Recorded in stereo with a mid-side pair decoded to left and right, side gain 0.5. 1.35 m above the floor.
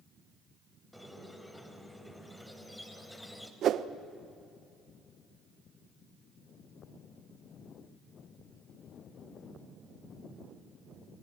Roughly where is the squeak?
Ahead.